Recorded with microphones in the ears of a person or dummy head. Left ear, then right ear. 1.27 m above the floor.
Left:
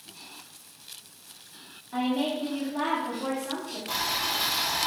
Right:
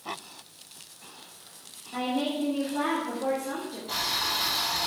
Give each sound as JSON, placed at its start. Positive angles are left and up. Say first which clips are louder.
{"t": 1.9, "sound": "a woman speaking", "louder": "left 1 dB", "side_deg": 20, "distance_m": 1.9}
{"t": 3.9, "sound": "boiling", "louder": "even", "side_deg": 55, "distance_m": 1.2}